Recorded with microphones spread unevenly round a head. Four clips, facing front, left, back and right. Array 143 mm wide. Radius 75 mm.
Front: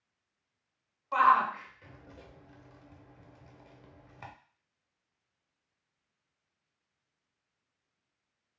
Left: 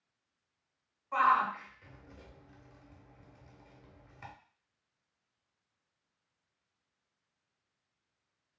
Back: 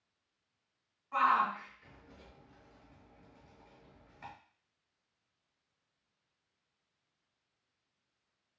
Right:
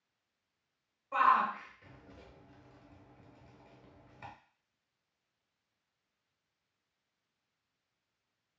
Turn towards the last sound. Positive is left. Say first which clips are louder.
# even, front 5 dB
turn(degrees=5)